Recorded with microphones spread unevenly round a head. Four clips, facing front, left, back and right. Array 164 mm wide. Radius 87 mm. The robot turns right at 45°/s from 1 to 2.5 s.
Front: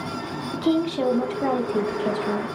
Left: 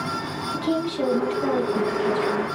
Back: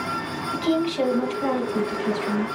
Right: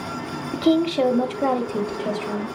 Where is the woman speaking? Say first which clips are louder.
Right 7 dB, front 1 dB; 90° right, 0.8 m; by 2.5 s 25° right, 0.8 m.